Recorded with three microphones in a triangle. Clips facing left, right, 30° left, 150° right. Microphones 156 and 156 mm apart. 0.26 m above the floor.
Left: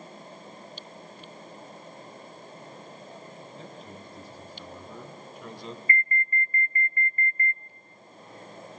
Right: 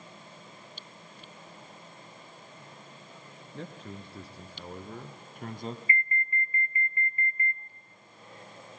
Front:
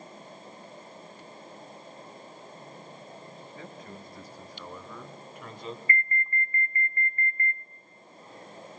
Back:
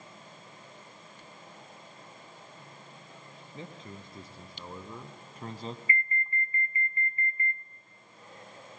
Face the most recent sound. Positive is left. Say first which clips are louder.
# left 3 dB, front 2 dB
turn(degrees=-120)